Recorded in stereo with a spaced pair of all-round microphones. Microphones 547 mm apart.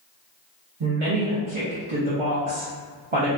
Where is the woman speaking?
60° right (ahead or behind), 0.9 m.